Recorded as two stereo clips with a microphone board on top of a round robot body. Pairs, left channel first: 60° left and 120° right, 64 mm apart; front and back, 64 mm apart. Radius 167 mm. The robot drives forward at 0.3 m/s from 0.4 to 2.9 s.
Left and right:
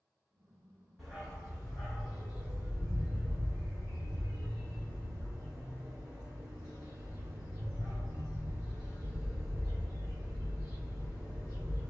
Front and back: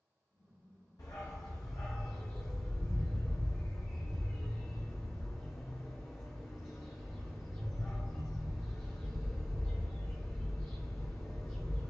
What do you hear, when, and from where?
1.0 s a dog barking: 25° right, 1.0 m; by 11.9 s 60° right, 0.7 m